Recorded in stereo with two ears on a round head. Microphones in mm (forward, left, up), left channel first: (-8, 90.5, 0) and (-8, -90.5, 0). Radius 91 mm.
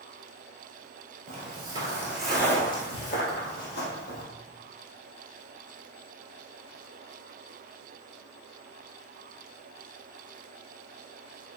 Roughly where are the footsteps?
Right.